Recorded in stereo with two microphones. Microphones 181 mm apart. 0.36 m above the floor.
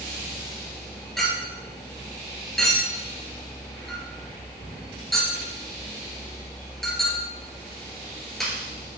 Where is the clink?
Centre (ahead or behind), 3.5 m.